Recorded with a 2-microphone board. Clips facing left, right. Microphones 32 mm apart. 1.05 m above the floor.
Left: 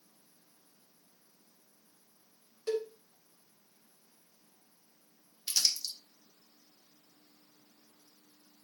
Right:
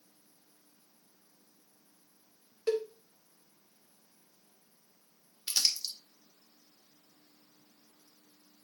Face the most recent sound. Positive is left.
turn(degrees=-20)  # may be behind; listen again after turning